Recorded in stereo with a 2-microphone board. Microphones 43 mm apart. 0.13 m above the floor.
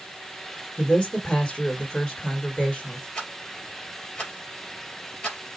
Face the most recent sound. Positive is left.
turn(degrees=35)  # may be behind; listen again after turning